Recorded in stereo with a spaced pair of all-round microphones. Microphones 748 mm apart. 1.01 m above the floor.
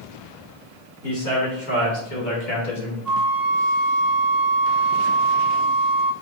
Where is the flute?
Centre (ahead or behind), 1.0 m.